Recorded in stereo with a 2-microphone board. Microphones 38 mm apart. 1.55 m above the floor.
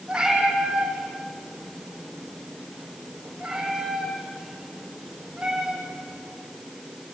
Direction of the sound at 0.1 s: 20° right (ahead or behind).